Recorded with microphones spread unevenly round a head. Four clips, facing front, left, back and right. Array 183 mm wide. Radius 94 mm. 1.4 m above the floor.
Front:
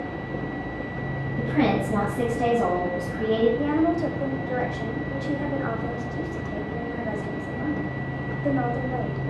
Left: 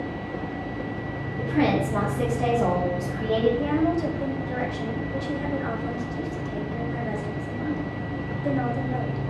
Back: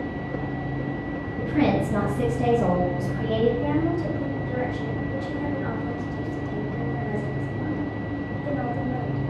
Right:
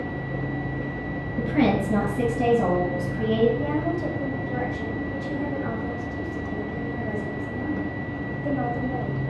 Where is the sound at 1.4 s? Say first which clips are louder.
Right 1 dB, even; 75° right, 1.7 m; by 3.5 s 70° right, 3 m.